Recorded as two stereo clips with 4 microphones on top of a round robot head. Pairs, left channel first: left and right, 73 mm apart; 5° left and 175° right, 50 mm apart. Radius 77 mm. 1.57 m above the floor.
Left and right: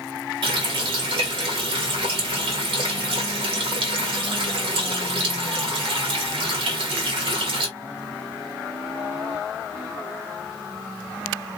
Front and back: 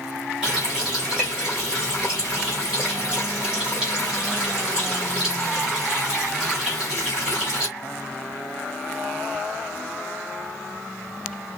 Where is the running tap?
95° right, 1.5 m.